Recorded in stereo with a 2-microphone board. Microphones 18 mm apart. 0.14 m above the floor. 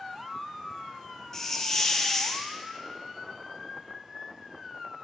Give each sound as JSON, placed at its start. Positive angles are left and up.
{"t": 1.3, "sound": "a hiss", "side_deg": 25, "distance_m": 1.6}